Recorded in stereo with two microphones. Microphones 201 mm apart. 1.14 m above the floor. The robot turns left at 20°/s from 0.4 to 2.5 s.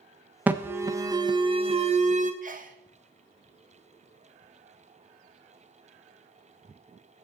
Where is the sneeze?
40° right (ahead or behind), 1.1 m; by 2.8 s 45° right (ahead or behind), 1.1 m.